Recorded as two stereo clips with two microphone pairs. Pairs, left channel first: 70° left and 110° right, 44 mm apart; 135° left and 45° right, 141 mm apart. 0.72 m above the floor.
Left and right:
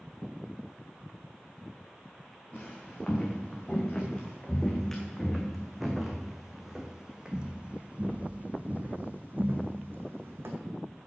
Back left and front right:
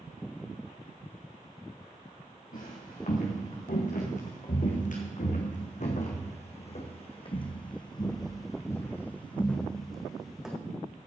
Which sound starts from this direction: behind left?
Footsteps, at 2.5 s.